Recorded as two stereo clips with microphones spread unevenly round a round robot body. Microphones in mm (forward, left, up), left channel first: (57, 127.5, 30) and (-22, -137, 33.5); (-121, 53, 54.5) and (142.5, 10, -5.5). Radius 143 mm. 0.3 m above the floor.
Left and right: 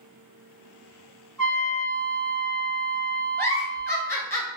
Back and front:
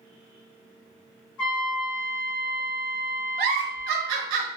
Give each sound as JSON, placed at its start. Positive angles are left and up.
{"t": 1.4, "sound": "a trumpet", "azimuth_deg": 160, "distance_m": 1.9}
{"t": 3.4, "sound": "a giggle", "azimuth_deg": -5, "distance_m": 0.8}